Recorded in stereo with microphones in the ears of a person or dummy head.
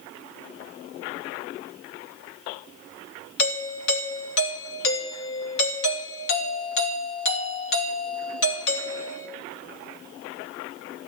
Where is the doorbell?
65° left (ahead or behind), 3 m.